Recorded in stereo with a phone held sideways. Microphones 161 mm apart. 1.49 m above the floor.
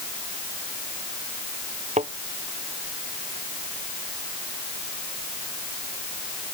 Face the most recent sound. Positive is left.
turn(degrees=-50)  # may be behind; listen again after turning